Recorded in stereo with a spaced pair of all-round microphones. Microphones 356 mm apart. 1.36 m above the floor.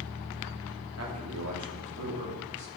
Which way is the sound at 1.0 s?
40° right (ahead or behind).